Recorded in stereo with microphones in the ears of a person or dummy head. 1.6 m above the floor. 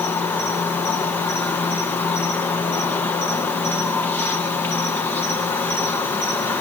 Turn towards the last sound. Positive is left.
turn(degrees=0)  # may be behind; listen again after turning